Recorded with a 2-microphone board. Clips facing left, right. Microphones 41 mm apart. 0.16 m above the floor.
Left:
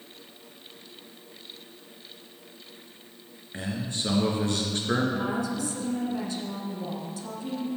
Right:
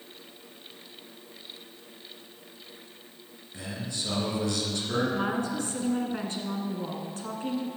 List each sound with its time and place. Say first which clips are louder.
3.5 s a man speaking: left 4 dB; 45° left (ahead or behind), 2.5 m
5.1 s a woman speaking: even; 45° right (ahead or behind), 1.7 m